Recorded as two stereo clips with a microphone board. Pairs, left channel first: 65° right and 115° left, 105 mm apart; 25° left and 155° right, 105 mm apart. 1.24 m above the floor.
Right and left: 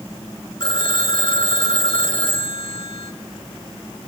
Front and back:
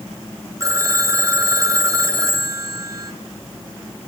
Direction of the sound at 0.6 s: 100° right.